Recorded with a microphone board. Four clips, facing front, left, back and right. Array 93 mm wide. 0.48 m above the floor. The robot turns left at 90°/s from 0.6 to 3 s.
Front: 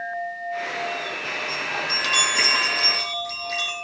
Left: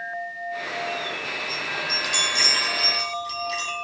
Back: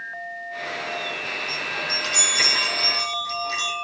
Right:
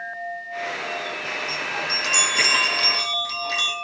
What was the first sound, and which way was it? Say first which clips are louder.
A chime: right 1 dB, front 2 dB; 35° left.